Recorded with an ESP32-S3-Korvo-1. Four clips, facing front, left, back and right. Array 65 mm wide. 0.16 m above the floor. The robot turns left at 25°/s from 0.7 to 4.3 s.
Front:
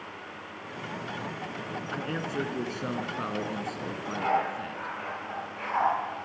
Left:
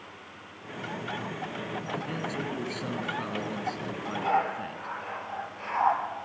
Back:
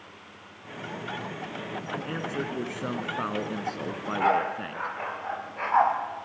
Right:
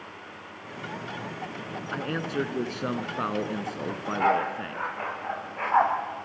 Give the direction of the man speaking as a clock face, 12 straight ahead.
3 o'clock.